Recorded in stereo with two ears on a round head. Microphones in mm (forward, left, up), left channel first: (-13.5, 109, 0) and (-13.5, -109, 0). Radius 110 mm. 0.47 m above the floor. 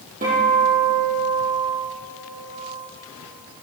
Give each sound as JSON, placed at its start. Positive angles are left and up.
{"t": 0.2, "sound": "a guitar", "side_deg": -35, "distance_m": 5.5}